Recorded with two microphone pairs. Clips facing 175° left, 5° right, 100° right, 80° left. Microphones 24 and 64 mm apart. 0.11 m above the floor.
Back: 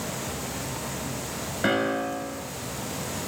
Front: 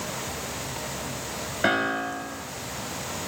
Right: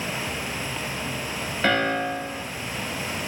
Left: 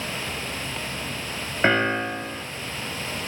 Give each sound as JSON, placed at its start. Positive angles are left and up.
{"t": 1.6, "sound": "a piano", "azimuth_deg": 60, "distance_m": 0.7}